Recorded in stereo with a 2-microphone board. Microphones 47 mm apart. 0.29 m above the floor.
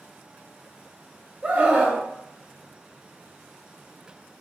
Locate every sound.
1.4 s a scream: 30° right (ahead or behind), 1.3 m